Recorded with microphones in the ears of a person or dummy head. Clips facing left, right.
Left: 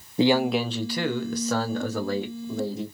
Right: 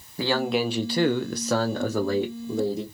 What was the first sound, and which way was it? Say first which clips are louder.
A man speaking: left 3 dB; 20° left (ahead or behind).